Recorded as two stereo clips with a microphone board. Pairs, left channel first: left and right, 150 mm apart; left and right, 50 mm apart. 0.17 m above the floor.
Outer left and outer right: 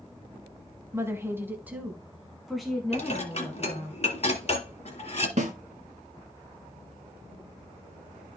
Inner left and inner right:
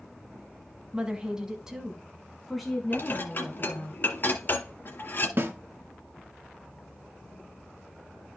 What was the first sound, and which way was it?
A woman speaking, 20° right (ahead or behind).